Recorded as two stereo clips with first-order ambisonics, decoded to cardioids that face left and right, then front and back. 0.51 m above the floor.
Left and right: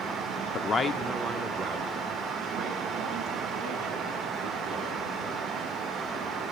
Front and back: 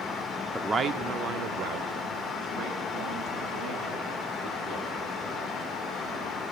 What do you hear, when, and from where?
0.5 s a man speaking: 90° left, 0.8 m; by 6.4 s 150° right, 7 m